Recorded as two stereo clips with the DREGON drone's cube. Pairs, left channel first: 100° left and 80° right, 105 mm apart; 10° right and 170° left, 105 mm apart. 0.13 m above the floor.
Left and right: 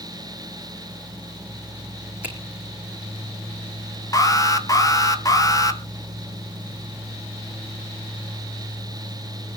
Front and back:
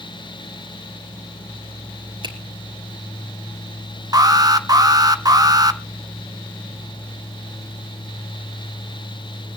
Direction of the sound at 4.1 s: 135° left.